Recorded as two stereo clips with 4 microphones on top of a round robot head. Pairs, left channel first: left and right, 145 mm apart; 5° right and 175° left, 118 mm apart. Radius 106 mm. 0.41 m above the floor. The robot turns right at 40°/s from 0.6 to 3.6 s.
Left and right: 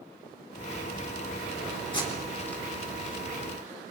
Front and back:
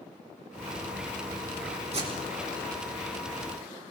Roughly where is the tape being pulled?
Behind left.